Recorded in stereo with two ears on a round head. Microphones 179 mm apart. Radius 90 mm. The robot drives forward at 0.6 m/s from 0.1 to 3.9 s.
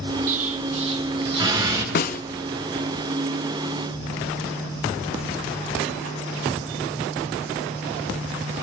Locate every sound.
0.3 s an explosion: 40° right (ahead or behind), 1.0 m; by 1.9 s 20° right (ahead or behind), 1.8 m
1.9 s a snare drum: 50° left (ahead or behind), 0.7 m; by 2.2 s 40° left (ahead or behind), 0.8 m